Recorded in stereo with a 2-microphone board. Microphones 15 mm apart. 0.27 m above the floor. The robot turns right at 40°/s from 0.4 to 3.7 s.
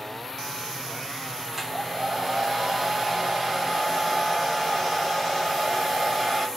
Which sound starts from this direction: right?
A hair dryer, at 1.5 s.